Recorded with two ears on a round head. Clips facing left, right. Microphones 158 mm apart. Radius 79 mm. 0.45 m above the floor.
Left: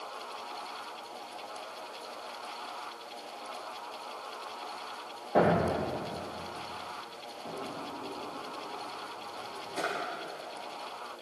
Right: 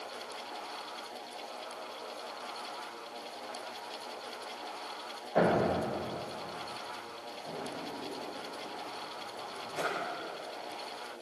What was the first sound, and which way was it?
A thud, 75° left (ahead or behind).